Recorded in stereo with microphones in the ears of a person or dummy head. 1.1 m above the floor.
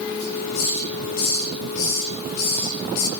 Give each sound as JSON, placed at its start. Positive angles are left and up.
{"t": 0.2, "sound": "a hiss", "side_deg": 55, "distance_m": 4.5}